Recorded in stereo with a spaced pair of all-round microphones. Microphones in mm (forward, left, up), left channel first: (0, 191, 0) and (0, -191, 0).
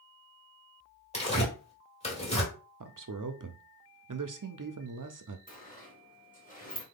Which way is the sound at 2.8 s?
55° right (ahead or behind).